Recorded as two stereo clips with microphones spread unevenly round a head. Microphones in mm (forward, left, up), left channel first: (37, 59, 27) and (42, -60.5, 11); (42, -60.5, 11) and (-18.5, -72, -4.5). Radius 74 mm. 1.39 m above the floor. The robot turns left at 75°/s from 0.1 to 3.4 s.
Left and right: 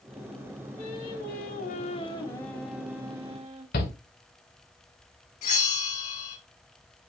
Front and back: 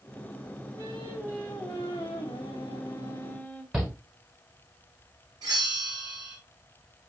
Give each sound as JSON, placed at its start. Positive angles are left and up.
{"t": 0.8, "sound": "singing", "azimuth_deg": 150, "distance_m": 3.0}
{"t": 3.7, "sound": "a shout", "azimuth_deg": 110, "distance_m": 2.0}
{"t": 5.4, "sound": "a bell", "azimuth_deg": 140, "distance_m": 1.8}